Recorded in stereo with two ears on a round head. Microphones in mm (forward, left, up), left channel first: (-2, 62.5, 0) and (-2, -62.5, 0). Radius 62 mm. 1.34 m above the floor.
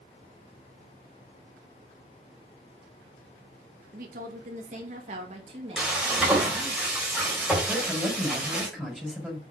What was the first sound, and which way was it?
A woman speaking, 65° right (ahead or behind).